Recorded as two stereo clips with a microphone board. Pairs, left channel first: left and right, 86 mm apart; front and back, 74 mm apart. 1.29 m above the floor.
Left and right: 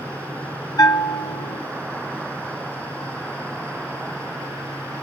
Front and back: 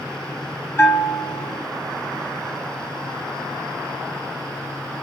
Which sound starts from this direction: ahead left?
A bell, at 0.8 s.